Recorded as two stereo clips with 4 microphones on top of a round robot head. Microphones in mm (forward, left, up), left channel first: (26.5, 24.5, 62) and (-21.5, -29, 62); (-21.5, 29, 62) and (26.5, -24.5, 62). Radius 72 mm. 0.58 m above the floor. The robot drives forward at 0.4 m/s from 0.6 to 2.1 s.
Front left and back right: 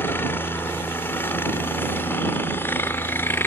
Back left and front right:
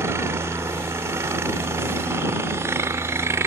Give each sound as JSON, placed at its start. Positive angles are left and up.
{"t": 0.0, "sound": "a helicopter", "azimuth_deg": -5}